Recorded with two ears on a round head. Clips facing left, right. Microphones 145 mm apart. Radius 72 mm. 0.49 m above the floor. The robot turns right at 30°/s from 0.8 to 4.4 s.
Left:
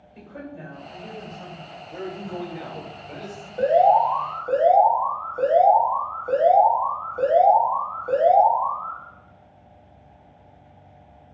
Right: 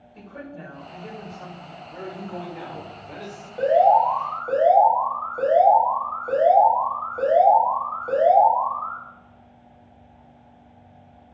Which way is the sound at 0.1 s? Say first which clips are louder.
Left 1 dB; 165° left.